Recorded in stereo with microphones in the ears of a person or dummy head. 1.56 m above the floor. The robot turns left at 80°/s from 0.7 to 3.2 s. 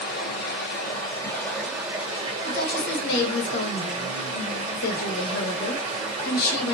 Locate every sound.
0.0 s running water: 85° left, 1.5 m; by 6.8 s 115° right, 1.5 m
2.4 s a woman speaking: 130° left, 0.8 m; by 6.8 s 65° left, 0.8 m